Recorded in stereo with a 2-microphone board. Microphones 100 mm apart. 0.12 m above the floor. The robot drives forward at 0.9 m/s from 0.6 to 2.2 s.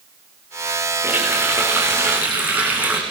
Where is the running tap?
20° right (ahead or behind), 8 m.